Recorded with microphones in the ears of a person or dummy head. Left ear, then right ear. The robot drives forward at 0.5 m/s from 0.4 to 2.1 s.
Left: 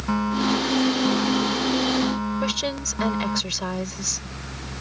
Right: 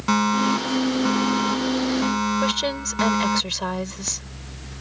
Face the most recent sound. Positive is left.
turn(degrees=-15)  # may be behind; listen again after turning